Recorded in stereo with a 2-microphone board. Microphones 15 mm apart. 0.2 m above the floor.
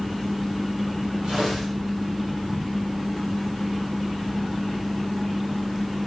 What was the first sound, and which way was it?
Tearing paper, 75° right (ahead or behind).